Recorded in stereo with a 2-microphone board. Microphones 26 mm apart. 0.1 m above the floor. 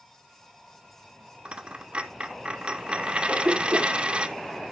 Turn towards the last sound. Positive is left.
turn(degrees=-75)  # may be behind; listen again after turning